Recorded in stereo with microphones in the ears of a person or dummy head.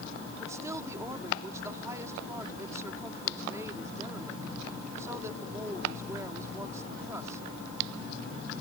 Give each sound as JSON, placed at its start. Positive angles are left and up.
{"t": 0.4, "sound": "a woman speaking", "side_deg": -15}